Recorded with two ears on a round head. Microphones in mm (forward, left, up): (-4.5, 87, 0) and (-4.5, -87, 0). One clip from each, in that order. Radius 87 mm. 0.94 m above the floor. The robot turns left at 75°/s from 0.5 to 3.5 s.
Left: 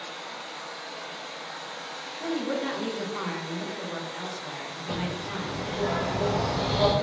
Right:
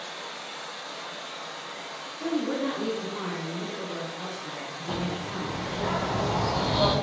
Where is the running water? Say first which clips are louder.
Even; 100° right, 1.4 m; by 7.0 s 35° left, 1.4 m.